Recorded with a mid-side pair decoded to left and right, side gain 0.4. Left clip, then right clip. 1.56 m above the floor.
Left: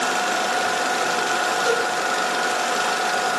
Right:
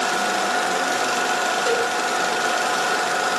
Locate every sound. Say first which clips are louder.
1.6 s a cowbell: even; 60° left, 2.0 m